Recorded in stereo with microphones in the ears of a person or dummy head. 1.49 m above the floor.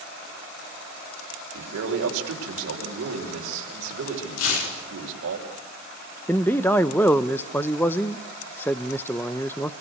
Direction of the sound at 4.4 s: 90° left.